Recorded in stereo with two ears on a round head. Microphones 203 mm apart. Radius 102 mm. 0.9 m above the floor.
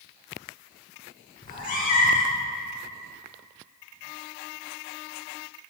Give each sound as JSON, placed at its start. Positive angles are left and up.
{"t": 1.4, "sound": "a cat meowing", "side_deg": 35, "distance_m": 1.1}